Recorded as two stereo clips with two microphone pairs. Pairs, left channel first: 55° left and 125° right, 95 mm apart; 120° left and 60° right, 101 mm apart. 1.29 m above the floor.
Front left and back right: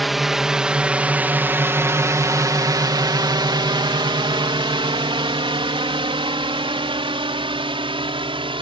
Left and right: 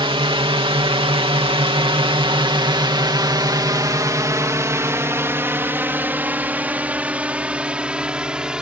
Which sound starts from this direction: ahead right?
A drone, at 0.0 s.